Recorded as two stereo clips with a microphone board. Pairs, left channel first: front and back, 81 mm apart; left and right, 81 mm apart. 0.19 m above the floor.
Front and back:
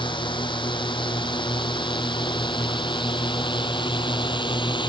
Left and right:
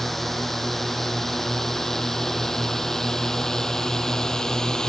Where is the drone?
5° left; by 4.9 s 10° left.